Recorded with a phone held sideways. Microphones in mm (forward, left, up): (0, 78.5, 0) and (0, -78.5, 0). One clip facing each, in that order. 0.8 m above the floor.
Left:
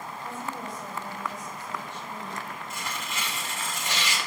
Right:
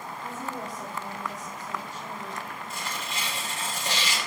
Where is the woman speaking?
40° right (ahead or behind), 5 m.